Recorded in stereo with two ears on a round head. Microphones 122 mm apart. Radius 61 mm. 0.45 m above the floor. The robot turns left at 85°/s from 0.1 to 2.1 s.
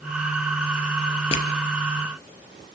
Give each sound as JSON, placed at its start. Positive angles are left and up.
{"t": 1.3, "sound": "crushing", "side_deg": 45, "distance_m": 3.5}